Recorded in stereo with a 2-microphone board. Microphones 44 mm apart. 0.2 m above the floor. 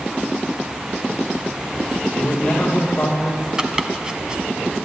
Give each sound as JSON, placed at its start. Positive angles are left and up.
{"t": 2.1, "sound": "a man speaking", "side_deg": 35, "distance_m": 6.5}
{"t": 3.6, "sound": "chopping", "side_deg": -15, "distance_m": 1.3}